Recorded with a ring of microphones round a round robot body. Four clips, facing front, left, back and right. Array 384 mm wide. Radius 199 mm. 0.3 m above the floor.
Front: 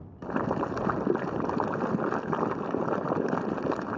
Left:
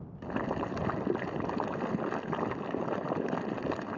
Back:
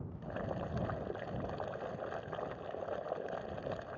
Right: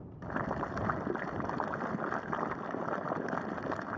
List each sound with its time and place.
0.2 s boiling: 15° left